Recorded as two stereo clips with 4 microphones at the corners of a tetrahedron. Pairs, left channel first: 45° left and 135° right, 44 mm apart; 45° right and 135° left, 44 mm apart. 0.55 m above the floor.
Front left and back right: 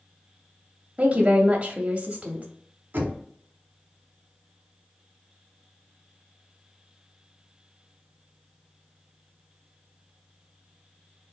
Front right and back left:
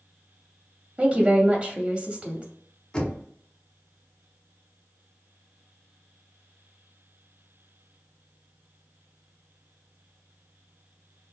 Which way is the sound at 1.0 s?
175° right.